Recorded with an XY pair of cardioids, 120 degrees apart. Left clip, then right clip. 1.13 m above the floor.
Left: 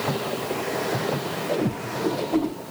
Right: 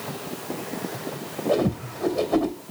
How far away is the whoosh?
About 2.5 m.